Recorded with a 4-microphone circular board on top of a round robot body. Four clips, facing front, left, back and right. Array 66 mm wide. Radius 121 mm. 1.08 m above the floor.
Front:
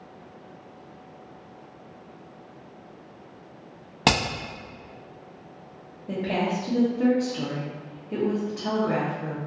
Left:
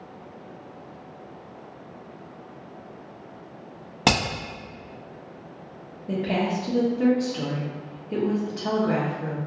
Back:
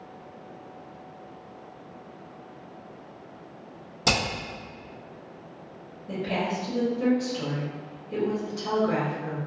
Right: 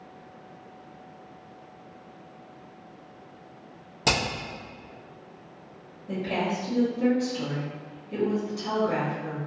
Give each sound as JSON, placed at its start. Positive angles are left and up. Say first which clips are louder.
{"t": 4.0, "sound": "hammering", "louder": "left 4 dB, front 3 dB", "azimuth_deg": 40, "distance_m": 1.1}
{"t": 6.1, "sound": "a woman speaking", "louder": "left 3 dB, front 2 dB", "azimuth_deg": 55, "distance_m": 0.8}